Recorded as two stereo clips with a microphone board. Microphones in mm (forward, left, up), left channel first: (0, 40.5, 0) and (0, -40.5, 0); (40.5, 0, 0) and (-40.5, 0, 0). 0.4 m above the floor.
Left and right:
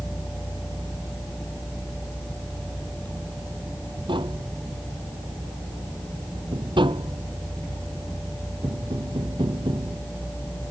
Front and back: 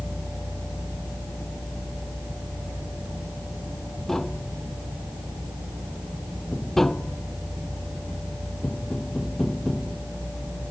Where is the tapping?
85° right.